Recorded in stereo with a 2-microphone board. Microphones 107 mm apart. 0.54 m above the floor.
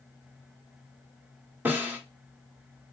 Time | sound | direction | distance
1.6 | a snare drum | 15° right (ahead or behind) | 0.9 m